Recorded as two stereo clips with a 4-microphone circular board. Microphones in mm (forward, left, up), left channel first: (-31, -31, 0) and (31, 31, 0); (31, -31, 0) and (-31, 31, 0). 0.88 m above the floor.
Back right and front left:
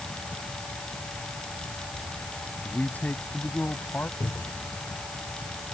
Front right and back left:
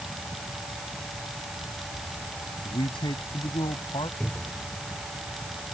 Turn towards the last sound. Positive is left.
turn(degrees=-120)